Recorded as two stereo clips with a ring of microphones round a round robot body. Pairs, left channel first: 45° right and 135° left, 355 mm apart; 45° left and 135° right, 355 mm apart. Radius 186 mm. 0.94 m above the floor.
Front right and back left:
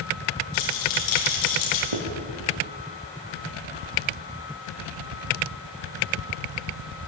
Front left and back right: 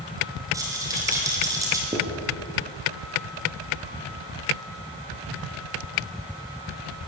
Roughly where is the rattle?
Ahead right.